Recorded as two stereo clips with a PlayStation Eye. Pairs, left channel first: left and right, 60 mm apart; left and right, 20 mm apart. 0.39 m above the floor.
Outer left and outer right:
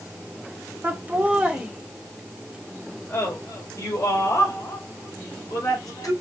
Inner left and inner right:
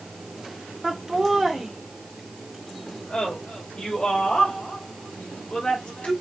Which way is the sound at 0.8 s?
30° right (ahead or behind).